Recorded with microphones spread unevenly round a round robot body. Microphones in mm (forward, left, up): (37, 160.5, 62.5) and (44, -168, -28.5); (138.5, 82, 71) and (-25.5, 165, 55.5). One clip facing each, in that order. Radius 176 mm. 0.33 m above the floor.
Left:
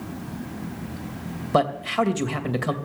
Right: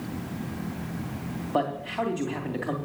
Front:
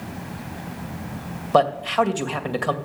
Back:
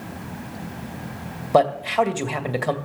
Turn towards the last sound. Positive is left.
turn(degrees=80)